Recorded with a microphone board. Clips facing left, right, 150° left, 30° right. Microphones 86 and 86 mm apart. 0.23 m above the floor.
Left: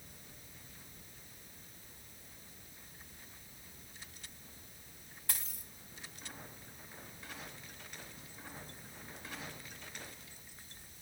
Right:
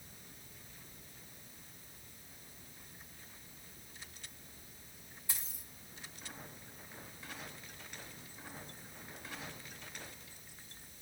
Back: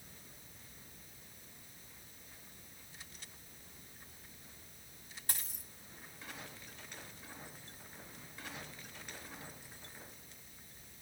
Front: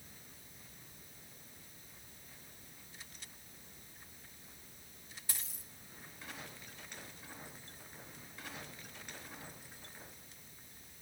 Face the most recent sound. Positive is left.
turn(degrees=105)